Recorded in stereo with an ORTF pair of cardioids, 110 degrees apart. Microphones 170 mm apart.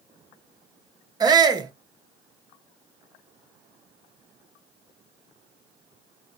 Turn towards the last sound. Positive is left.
turn(degrees=-25)